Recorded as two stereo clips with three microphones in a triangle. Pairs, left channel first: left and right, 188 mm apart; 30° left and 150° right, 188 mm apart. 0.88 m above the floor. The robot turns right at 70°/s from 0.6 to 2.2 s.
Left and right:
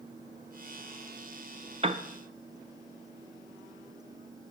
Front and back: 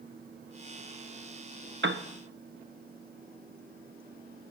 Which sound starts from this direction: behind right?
A piano, at 1.8 s.